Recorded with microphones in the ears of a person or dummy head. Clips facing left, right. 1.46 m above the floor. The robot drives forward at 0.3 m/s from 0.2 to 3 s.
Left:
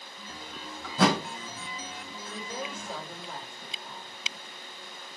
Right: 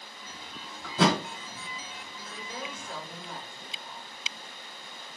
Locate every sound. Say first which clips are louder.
0.8 s a thud: even; 65° right (ahead or behind), 1.9 m
2.3 s a woman speaking: left 3 dB; 25° left (ahead or behind), 1.2 m; by 4.2 s 20° left (ahead or behind), 1.4 m